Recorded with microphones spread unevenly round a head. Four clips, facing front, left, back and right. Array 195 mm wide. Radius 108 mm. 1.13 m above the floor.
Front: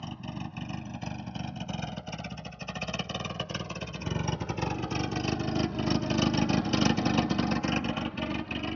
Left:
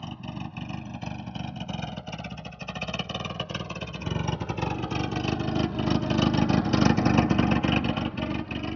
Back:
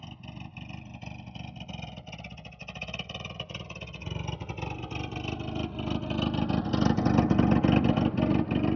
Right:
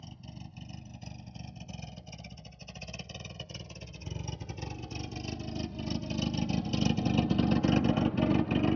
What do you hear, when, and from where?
0.0 s a vehicle: 55° left; by 8.8 s 140° right